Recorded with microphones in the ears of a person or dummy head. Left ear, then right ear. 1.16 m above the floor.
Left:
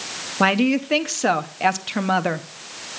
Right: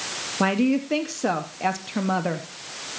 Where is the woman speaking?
25° left (ahead or behind), 0.6 m.